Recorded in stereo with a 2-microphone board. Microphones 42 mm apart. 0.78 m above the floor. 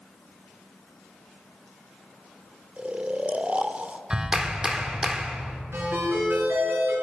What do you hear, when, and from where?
2.8 s snoring: 30° right (ahead or behind), 0.5 m
4.1 s a clap: 20° right (ahead or behind), 1.3 m
5.7 s a ringtone: 75° right (ahead or behind), 7 m